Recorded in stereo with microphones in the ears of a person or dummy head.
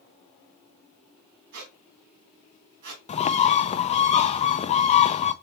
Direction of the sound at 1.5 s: 65° right (ahead or behind).